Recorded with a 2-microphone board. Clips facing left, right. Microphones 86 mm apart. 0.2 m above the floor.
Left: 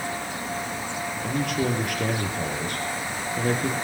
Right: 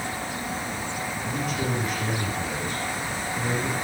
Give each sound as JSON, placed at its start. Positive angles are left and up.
{"t": 1.2, "sound": "a man speaking", "side_deg": 60, "distance_m": 4.0}